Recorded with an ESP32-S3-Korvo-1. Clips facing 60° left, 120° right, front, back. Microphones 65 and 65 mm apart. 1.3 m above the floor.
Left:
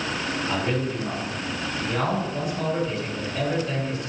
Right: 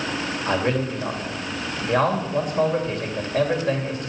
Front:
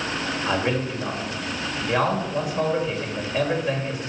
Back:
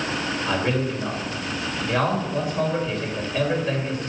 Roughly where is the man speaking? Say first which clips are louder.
Right 5 dB, even; right.